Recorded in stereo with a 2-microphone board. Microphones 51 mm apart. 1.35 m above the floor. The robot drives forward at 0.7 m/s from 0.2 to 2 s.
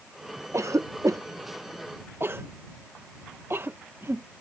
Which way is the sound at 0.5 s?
65° right (ahead or behind).